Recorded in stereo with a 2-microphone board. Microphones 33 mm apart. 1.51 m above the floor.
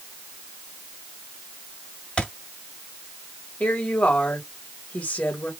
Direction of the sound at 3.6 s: 40° left (ahead or behind).